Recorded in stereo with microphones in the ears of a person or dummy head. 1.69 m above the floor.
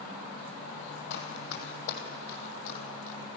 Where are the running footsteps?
50° left (ahead or behind), 2.5 m; by 3.2 s 40° left (ahead or behind), 3 m.